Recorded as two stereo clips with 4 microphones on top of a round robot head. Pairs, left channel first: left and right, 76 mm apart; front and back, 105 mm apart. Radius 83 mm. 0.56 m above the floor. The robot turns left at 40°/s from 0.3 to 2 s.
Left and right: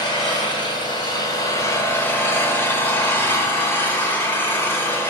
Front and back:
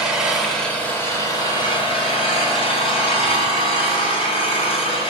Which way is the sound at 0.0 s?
95° left.